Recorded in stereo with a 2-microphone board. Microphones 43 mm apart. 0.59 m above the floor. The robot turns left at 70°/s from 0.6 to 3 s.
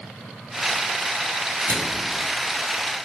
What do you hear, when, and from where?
1.7 s a microwave: 70° right (ahead or behind), 2 m; by 2.1 s 80° right, 2 m